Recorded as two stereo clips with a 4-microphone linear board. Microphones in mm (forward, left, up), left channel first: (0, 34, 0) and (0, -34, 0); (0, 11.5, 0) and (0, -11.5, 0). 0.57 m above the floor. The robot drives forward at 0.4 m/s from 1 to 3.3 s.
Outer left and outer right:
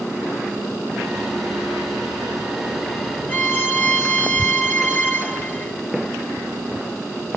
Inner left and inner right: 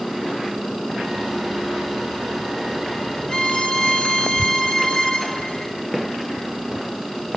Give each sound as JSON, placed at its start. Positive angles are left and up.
{"t": 3.3, "sound": "a violin", "side_deg": 20, "distance_m": 1.1}